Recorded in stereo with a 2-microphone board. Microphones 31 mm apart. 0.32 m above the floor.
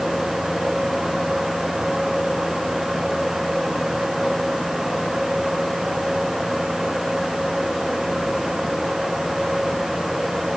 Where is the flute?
I don't hear a flute.